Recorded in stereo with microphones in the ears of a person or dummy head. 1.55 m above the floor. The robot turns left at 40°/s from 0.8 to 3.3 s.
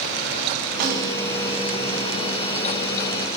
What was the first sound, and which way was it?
A snare drum, 60° right (ahead or behind).